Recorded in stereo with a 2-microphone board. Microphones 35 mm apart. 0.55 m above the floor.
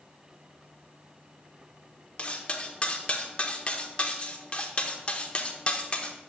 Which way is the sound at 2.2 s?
35° left (ahead or behind).